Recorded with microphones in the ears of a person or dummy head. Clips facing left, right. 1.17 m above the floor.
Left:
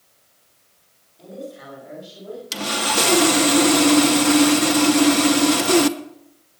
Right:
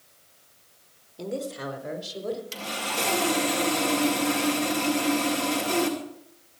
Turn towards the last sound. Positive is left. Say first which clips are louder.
# left 8 dB
turn(degrees=60)  # may be behind; listen again after turning